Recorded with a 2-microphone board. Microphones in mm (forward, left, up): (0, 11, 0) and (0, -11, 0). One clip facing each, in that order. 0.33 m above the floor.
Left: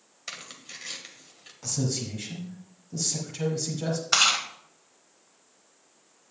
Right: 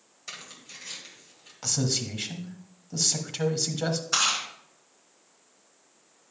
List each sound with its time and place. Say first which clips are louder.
0.3 s tearing paper: left 2 dB; 30° left (ahead or behind), 1.7 m
1.6 s a man speaking: right 3 dB; 40° right (ahead or behind), 1.3 m
4.1 s chewing: left 5 dB; 45° left (ahead or behind), 1.6 m